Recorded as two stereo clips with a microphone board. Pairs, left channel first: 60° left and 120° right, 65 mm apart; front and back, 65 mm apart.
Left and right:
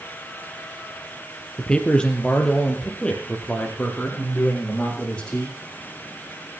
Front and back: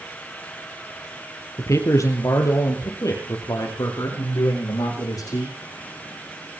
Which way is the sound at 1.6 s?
10° right.